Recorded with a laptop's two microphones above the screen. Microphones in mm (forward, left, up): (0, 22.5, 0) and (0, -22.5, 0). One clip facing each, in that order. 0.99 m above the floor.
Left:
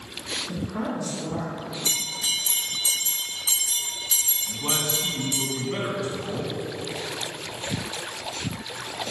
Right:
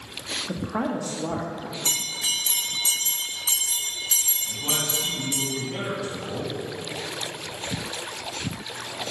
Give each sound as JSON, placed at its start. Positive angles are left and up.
{"t": 0.5, "sound": "a woman speaking", "side_deg": -75, "distance_m": 0.7}
{"t": 1.9, "sound": "a bell", "side_deg": -55, "distance_m": 2.0}
{"t": 4.5, "sound": "a man speaking", "side_deg": 55, "distance_m": 1.5}